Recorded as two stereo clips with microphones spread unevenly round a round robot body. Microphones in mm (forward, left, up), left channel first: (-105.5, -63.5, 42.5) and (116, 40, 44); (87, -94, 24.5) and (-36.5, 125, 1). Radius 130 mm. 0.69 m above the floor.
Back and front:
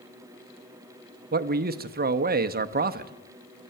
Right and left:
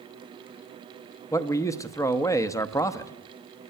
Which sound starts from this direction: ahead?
A man speaking, at 1.3 s.